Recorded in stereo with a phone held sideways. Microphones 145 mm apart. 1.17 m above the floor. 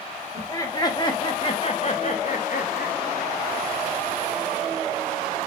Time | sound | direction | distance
0.3 | laughter | 20° left (ahead or behind) | 3 m